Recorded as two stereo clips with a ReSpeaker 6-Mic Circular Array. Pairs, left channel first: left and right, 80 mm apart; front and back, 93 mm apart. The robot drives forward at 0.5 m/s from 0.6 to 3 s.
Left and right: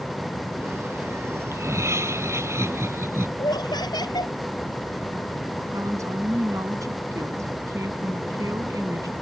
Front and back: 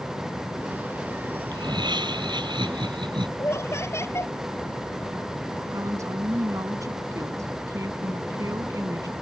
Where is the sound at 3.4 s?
60° left.